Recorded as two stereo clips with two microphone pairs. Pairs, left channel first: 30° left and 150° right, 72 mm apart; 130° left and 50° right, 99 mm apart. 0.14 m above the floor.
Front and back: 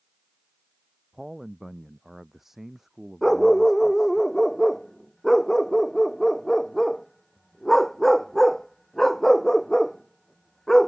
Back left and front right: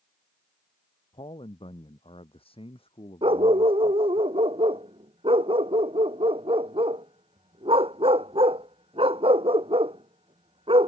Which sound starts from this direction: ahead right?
A dog barking, at 3.2 s.